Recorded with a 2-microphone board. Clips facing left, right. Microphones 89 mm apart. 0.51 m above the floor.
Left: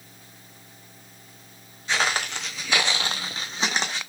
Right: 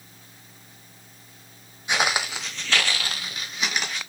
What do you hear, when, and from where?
1.9 s footsteps: 15° right (ahead or behind), 0.9 m; by 4.0 s 30° left (ahead or behind), 1.3 m